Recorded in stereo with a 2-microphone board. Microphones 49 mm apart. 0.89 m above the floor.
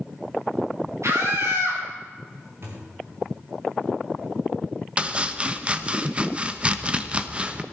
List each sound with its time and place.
1.0 s a scream: 80° right, 8 m
2.6 s a thud: 55° right (ahead or behind), 4.5 m
5.0 s chopping: 25° right (ahead or behind), 0.9 m